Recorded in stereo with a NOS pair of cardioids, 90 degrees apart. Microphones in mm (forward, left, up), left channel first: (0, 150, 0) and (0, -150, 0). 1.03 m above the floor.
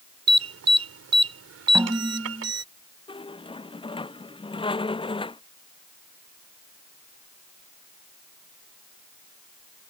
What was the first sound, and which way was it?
An alarm, 55° right.